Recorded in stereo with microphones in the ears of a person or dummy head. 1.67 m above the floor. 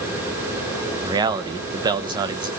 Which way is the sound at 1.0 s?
20° right (ahead or behind).